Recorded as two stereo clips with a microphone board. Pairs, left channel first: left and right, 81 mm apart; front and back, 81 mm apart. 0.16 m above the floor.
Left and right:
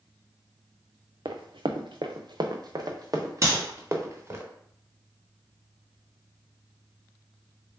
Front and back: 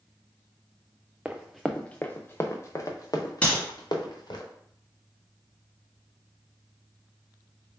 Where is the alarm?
No alarm in this recording.